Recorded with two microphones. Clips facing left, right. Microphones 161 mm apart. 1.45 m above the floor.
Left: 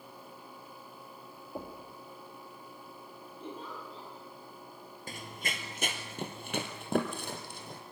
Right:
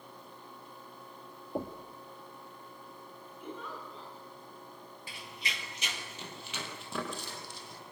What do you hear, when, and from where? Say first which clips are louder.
1.6 s knocking: right 5 dB; 30° right (ahead or behind), 2.0 m
3.4 s a giggle: even; 30° left (ahead or behind), 9.5 m
5.1 s running footsteps: left 4 dB; 45° left (ahead or behind), 2.0 m; by 7.8 s 55° left (ahead or behind), 4 m